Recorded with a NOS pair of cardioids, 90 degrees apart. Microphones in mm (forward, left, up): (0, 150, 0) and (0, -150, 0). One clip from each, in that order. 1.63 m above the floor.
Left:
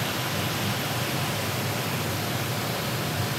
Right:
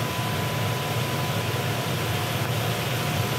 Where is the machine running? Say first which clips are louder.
Even; 40° right, 6 m.